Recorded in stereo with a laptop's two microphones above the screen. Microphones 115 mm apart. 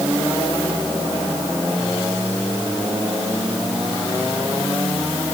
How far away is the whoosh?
I don't hear a whoosh.